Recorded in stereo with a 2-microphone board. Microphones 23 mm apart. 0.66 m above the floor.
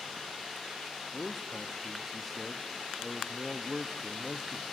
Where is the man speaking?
5° right (ahead or behind), 0.5 m.